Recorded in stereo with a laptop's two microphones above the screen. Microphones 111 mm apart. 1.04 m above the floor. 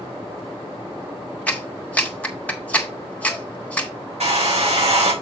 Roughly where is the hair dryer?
Right.